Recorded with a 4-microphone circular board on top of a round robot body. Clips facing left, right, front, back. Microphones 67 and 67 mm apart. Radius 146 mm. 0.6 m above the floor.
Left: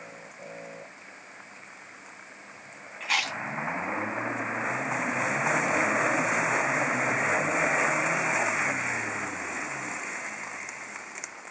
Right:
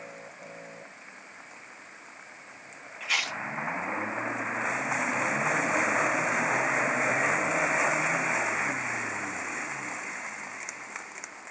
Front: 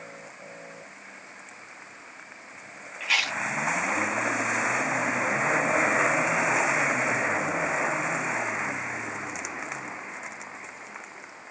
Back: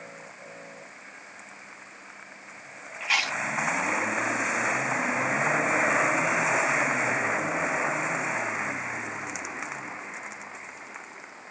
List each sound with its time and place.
3.0 s chewing: 120° left, 2.5 m